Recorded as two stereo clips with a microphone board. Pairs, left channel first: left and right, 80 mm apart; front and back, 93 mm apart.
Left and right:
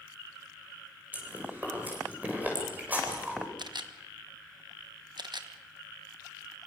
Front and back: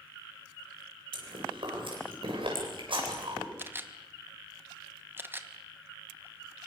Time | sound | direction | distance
1.1 | chewing | 160° right | 8 m
3.6 | a camera shutter | 115° right | 1.4 m